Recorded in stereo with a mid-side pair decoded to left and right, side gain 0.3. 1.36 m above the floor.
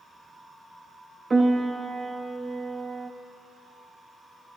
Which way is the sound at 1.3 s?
45° right.